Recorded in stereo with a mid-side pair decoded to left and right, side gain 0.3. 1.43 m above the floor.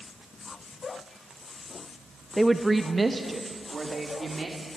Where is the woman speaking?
5° right, 0.8 m; by 4.7 s 40° right, 4 m.